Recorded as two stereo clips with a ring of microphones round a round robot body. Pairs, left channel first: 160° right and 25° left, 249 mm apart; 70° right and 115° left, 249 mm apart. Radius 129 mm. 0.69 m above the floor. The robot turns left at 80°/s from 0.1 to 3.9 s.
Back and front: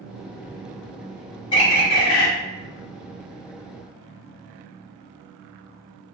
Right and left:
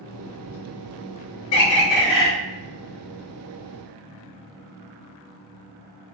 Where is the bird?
90° right, 1.5 m; by 2.3 s 150° right, 1.5 m.